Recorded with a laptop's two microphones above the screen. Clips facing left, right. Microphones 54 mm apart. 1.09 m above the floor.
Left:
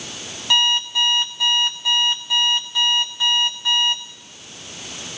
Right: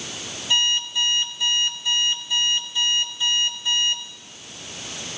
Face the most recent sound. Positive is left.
turn(degrees=85)